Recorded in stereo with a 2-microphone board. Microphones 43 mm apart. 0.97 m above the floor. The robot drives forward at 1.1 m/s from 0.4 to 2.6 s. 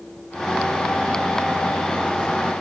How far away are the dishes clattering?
I don't hear dishes clattering.